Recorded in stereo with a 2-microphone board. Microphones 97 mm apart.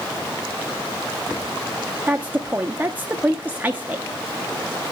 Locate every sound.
2.1 s a woman speaking: 20° right (ahead or behind), 0.7 m